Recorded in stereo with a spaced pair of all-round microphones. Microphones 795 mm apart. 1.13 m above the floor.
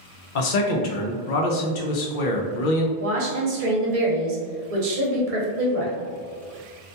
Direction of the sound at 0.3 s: 80° left.